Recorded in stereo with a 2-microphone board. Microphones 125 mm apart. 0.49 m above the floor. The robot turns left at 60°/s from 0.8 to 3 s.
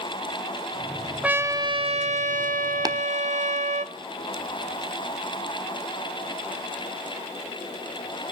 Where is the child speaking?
No child speaking in this recording.